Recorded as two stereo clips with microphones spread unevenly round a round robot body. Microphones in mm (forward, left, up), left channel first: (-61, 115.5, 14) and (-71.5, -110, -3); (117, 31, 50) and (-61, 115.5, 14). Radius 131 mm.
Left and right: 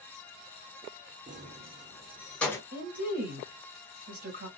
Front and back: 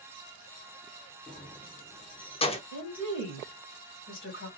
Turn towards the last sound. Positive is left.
turn(degrees=-45)